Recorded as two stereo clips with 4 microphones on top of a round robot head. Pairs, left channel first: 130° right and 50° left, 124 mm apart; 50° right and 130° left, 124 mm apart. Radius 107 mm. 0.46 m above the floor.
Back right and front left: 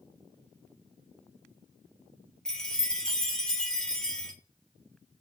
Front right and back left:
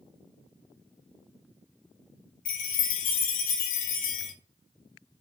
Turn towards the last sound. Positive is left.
turn(degrees=-45)